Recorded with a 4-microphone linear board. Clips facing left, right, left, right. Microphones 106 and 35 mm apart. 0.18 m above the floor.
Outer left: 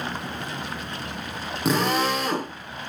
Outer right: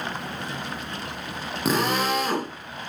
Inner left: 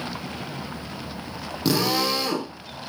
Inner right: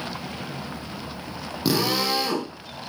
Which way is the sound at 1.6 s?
Centre (ahead or behind).